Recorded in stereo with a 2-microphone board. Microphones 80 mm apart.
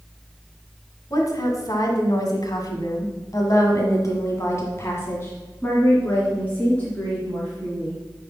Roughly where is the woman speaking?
Left.